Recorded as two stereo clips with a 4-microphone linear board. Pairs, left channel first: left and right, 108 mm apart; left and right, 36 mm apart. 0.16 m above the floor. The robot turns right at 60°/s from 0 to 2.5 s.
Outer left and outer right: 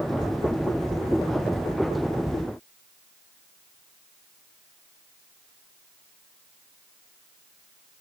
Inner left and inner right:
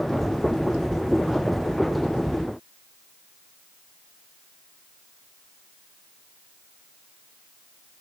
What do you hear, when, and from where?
Only background noise.